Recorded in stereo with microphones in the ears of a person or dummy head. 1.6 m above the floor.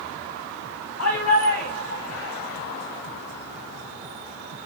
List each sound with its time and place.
1.0 s a shout: 80° left, 6 m; by 2.3 s 70° left (ahead or behind), 4.5 m